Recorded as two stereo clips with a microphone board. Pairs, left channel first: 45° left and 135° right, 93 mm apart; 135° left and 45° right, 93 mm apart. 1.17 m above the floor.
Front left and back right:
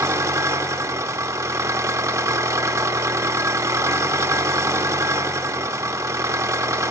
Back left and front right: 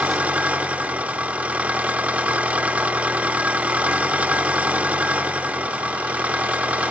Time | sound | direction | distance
0.0 | an engine running | 110° right | 0.9 m